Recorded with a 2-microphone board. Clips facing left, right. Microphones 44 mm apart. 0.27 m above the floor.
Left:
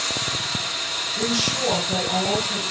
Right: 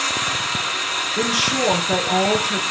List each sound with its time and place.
0.0 s running water: 45° right (ahead or behind), 1.8 m
1.2 s a woman speaking: 60° right (ahead or behind), 3.5 m